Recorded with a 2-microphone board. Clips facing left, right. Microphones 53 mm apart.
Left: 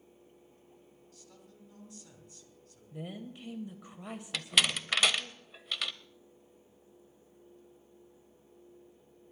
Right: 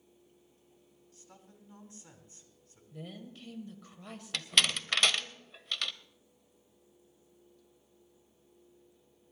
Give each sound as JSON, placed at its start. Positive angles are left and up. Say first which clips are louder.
{"t": 1.1, "sound": "a man speaking", "louder": "right 1 dB", "side_deg": -30, "distance_m": 2.5}
{"t": 2.9, "sound": "a woman speaking", "louder": "left 4 dB", "side_deg": 15, "distance_m": 0.9}
{"t": 4.3, "sound": "a door slam", "louder": "even", "side_deg": 5, "distance_m": 0.7}